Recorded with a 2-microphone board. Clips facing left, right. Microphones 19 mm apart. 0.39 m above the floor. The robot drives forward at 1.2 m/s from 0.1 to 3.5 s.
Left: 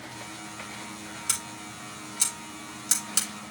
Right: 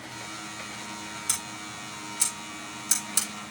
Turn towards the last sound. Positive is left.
turn(degrees=40)  # may be behind; listen again after turning